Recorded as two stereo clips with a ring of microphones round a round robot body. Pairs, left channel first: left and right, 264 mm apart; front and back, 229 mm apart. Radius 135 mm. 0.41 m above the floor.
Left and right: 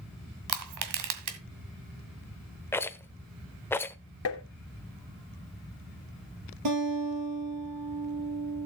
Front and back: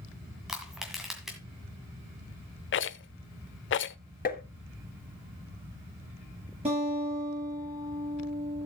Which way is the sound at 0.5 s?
90° right.